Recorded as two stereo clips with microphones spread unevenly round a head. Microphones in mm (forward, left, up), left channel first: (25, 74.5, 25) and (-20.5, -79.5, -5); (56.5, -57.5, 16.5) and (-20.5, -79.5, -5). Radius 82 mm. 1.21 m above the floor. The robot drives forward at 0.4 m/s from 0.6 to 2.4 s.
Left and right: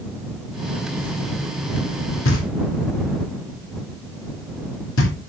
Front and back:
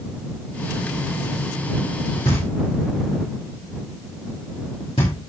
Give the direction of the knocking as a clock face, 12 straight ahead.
10 o'clock.